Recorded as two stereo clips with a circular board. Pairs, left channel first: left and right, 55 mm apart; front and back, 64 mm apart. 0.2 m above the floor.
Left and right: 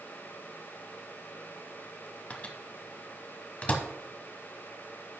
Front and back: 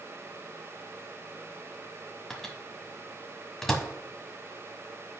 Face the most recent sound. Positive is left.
turn(degrees=80)